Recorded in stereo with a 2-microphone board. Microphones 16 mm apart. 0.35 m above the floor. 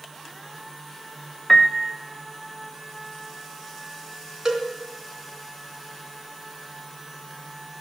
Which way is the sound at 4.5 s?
45° right (ahead or behind).